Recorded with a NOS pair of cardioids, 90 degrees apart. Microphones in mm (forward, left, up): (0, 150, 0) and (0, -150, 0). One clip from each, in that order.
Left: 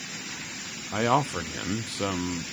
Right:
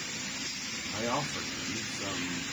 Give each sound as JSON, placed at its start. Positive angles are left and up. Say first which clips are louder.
{"t": 0.9, "sound": "a man speaking", "louder": "left 9 dB", "azimuth_deg": 60, "distance_m": 0.7}